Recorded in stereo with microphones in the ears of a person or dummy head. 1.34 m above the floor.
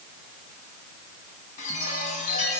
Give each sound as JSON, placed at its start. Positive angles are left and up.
{"t": 1.6, "sound": "a chime", "side_deg": 35, "distance_m": 6.5}